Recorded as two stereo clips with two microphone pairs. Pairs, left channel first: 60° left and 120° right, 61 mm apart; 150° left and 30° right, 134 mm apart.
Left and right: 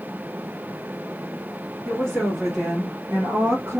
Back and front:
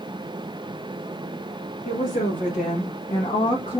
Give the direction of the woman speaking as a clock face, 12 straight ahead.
7 o'clock.